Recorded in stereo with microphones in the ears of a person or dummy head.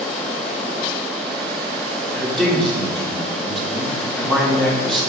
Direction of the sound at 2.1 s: 5° left (ahead or behind).